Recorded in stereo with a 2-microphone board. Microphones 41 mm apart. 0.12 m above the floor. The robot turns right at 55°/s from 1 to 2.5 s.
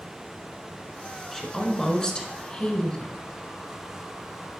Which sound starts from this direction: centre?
A woman speaking, at 1.3 s.